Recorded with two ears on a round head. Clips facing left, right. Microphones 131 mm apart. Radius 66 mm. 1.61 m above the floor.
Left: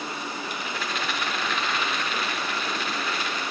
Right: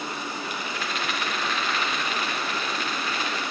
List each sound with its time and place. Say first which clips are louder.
0.4 s a rattle: even; 80° left, 4 m